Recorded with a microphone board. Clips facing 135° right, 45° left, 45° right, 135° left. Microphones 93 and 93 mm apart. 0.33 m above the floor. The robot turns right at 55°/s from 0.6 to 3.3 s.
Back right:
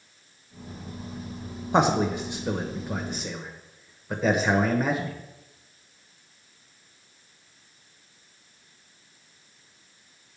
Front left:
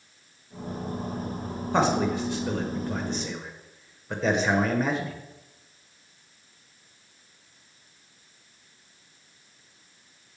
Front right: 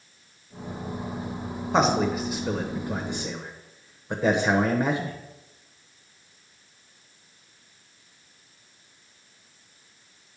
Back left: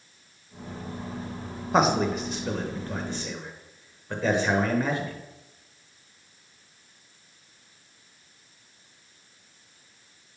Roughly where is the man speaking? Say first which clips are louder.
Back right 2 dB, even; behind right.